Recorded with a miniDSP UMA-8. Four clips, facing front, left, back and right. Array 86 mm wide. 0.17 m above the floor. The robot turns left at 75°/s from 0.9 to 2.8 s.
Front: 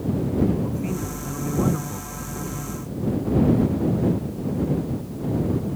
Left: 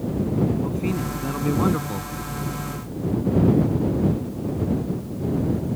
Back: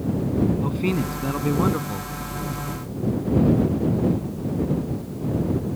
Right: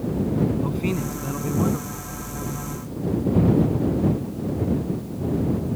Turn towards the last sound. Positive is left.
turn(degrees=55)